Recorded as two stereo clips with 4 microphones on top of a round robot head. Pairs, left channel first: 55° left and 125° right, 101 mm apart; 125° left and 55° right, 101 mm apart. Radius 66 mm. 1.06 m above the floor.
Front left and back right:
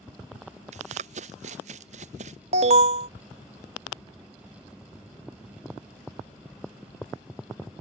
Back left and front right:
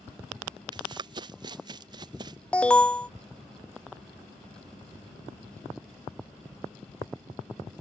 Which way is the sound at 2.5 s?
155° right.